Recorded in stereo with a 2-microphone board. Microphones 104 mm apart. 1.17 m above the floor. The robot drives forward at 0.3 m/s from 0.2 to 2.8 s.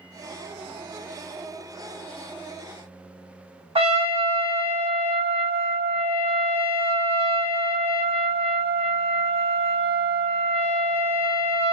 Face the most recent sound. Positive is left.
turn(degrees=-70)  # may be behind; listen again after turning